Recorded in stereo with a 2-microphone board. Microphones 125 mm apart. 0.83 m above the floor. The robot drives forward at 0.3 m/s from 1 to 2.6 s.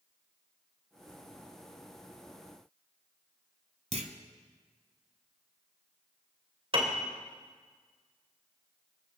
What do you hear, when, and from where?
3.9 s a clunk: 60° right (ahead or behind), 1.3 m
6.7 s a piano: 50° right (ahead or behind), 2.5 m